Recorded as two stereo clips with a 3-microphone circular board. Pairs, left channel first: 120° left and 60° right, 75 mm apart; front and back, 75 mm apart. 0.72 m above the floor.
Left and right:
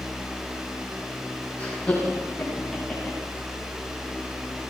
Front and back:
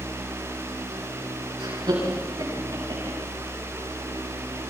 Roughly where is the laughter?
Behind.